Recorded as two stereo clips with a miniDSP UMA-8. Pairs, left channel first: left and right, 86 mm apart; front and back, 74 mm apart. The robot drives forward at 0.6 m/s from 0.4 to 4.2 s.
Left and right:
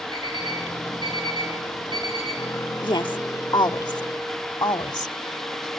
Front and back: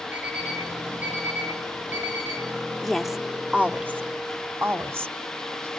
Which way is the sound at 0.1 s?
115° right.